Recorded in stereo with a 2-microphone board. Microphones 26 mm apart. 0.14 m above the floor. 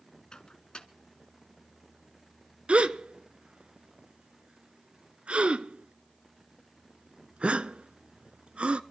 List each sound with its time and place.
0.3 s a microwave: 35° left (ahead or behind), 1.1 m
2.7 s a gasp: 55° right (ahead or behind), 0.5 m